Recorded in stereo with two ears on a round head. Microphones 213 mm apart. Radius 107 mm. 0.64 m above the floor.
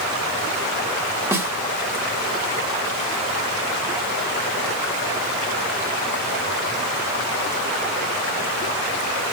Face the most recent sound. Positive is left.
turn(degrees=-10)  # may be behind; listen again after turning